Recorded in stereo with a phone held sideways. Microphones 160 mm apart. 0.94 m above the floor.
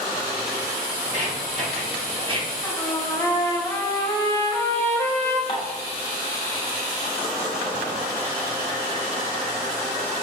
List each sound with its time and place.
1.0 s footsteps: 60° right (ahead or behind), 1.7 m; by 2.5 s 30° right (ahead or behind), 1.0 m
2.6 s a trumpet: 15° left (ahead or behind), 0.7 m
5.5 s dishes clattering: 30° left (ahead or behind), 0.9 m